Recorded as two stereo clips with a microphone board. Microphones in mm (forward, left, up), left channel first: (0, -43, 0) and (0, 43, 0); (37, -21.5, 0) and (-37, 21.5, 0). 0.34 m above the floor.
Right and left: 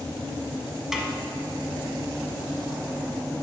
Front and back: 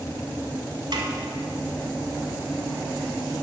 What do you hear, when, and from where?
0.9 s a snare drum: 175° left, 0.9 m